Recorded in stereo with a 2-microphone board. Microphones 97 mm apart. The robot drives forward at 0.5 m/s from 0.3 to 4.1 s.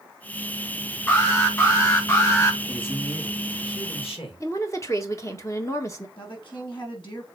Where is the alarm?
25° left (ahead or behind), 3.5 m; by 2.6 s 35° left (ahead or behind), 3 m.